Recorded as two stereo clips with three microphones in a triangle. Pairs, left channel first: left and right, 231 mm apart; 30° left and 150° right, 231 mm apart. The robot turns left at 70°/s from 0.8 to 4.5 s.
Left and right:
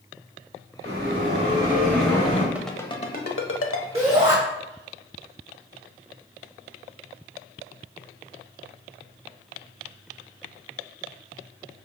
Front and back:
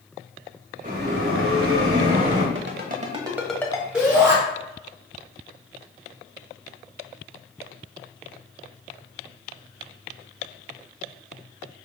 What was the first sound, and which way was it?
A bell, 95° right.